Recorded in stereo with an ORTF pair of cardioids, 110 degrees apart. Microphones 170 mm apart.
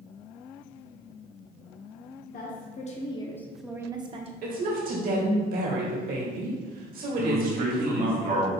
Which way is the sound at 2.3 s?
65° left.